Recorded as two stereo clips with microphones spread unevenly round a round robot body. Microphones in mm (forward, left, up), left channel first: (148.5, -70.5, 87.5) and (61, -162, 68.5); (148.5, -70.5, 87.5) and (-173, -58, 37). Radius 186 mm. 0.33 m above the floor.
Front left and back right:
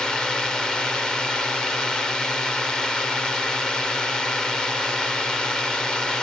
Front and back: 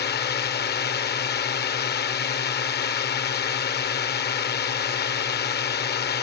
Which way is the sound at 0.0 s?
50° right.